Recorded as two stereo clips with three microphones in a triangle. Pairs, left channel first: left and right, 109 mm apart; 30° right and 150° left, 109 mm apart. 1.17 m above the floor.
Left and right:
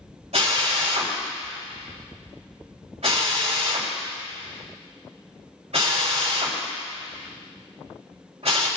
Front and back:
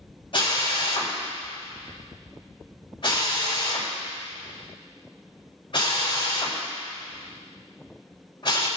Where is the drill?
70° right, 3.5 m.